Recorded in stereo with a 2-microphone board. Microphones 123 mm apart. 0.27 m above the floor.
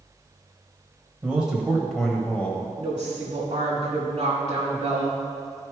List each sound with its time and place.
1.2 s a man speaking: 10° right (ahead or behind), 1.3 m; by 2.7 s 15° left (ahead or behind), 1.5 m
2.8 s a woman speaking: 40° right (ahead or behind), 1.5 m